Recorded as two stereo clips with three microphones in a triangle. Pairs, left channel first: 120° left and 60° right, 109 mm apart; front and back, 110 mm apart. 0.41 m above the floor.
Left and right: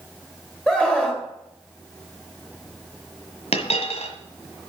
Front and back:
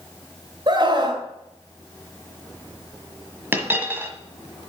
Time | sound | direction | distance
0.7 | a scream | 160° right | 1.7 m
3.5 | a dropped coin | 110° left | 1.6 m